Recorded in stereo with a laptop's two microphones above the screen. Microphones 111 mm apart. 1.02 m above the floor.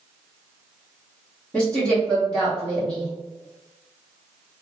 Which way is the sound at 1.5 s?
10° left (ahead or behind).